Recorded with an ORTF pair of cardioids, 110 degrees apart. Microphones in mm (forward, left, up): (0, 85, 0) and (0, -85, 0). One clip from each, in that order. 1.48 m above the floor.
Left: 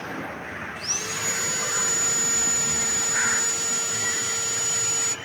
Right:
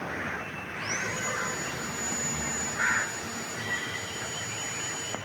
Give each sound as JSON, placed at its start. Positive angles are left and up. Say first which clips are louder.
{"t": 0.8, "sound": "sawing", "louder": "left 2 dB", "azimuth_deg": 65, "distance_m": 1.2}